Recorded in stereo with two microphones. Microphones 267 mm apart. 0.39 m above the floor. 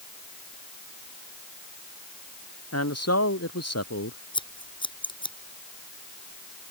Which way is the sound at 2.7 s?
75° left (ahead or behind).